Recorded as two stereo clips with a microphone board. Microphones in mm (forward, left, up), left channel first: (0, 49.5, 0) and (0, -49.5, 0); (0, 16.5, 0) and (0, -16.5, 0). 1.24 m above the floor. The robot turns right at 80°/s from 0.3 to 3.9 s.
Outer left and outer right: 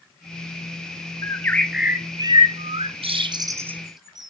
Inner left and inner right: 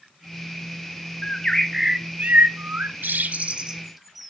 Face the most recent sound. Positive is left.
turn(degrees=-5)  # may be behind; listen again after turning